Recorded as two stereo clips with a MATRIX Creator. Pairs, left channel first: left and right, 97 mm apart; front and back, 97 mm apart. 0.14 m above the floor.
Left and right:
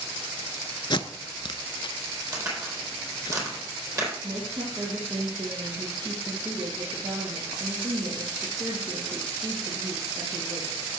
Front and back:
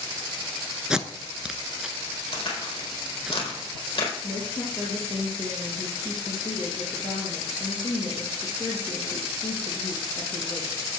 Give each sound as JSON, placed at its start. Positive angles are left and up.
{"t": 0.9, "sound": "tape being pulled", "azimuth_deg": 100, "distance_m": 0.7}
{"t": 2.3, "sound": "a crack", "azimuth_deg": -30, "distance_m": 4.0}
{"t": 4.2, "sound": "a woman speaking", "azimuth_deg": -60, "distance_m": 4.0}